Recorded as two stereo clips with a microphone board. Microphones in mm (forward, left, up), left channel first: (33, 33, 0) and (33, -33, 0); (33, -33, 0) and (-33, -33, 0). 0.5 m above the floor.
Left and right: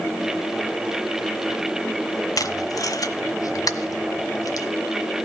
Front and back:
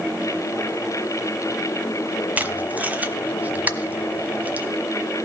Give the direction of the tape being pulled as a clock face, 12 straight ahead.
8 o'clock.